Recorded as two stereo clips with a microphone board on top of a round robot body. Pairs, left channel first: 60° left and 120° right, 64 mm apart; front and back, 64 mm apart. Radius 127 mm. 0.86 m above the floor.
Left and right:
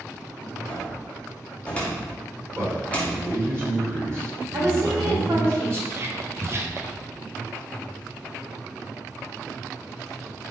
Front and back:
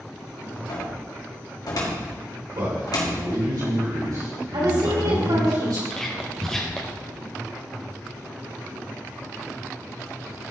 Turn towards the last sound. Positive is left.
turn(degrees=-80)